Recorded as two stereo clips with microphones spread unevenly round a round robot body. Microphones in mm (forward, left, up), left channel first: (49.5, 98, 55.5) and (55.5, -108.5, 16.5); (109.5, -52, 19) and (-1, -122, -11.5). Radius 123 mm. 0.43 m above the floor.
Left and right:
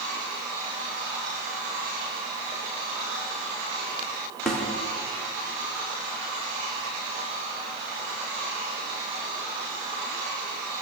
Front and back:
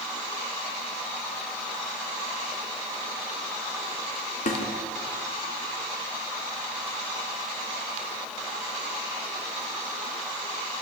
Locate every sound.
4.5 s a snare drum: straight ahead, 4 m